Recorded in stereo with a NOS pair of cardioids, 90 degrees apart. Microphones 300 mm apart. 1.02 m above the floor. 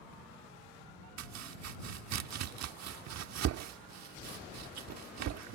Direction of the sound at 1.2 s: 65° right.